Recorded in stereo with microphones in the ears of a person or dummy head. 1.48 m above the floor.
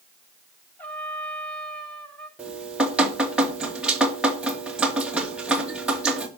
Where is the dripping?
5° right (ahead or behind), 2 m.